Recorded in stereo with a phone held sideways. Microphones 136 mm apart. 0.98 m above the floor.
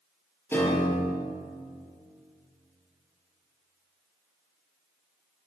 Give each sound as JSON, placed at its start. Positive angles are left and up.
{"t": 0.5, "sound": "a piano", "side_deg": 15, "distance_m": 7.5}